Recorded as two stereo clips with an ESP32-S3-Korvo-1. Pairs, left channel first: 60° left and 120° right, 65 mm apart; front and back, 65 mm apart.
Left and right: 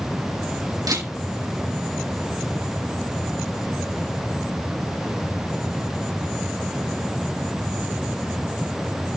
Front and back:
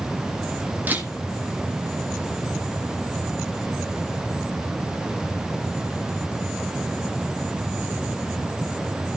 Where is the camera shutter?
120° right, 5 m.